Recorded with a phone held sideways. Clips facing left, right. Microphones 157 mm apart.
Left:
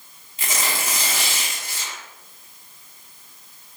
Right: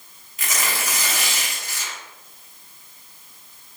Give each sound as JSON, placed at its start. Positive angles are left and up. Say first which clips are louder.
{"t": 0.4, "sound": "tearing paper", "louder": "even", "side_deg": 25, "distance_m": 1.0}